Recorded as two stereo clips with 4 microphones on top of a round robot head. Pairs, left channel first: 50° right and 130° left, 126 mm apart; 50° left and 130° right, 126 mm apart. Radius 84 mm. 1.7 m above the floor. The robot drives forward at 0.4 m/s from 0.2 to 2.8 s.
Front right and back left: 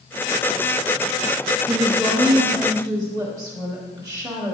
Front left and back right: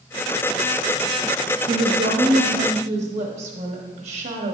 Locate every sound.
1.7 s a woman speaking: 155° right, 0.7 m; by 4.5 s 165° right, 1.1 m